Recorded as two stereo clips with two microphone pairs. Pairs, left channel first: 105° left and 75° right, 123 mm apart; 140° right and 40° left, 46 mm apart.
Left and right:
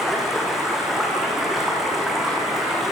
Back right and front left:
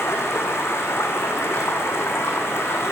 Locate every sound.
0.0 s running water: 165° right, 9 m